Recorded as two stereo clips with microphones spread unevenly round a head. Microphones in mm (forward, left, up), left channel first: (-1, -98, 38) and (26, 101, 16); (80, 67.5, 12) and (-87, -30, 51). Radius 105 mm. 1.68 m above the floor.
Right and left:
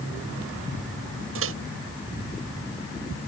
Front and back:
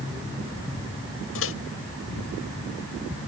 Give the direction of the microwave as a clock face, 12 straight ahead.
10 o'clock.